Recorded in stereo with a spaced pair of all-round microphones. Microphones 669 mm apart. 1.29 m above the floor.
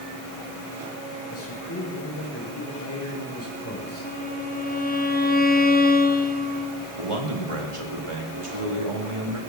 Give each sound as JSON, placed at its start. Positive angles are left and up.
{"t": 1.3, "sound": "a man speaking", "side_deg": 20, "distance_m": 6.5}
{"t": 4.0, "sound": "a violin", "side_deg": 15, "distance_m": 0.9}
{"t": 7.0, "sound": "a man speaking", "side_deg": -50, "distance_m": 3.0}